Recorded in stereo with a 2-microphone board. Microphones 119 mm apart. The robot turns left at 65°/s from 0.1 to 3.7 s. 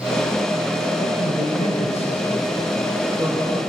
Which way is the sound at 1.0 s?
130° left.